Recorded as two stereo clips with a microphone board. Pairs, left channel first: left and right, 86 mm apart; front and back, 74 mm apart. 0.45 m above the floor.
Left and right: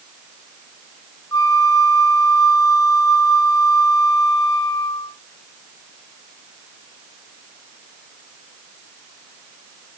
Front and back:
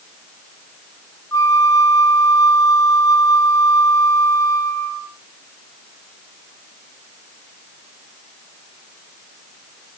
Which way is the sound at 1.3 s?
40° left.